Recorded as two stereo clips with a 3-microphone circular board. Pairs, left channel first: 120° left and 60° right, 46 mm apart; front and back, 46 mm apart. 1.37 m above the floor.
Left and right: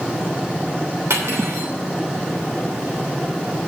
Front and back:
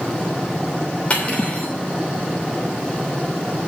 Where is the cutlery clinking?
60° right, 3 m.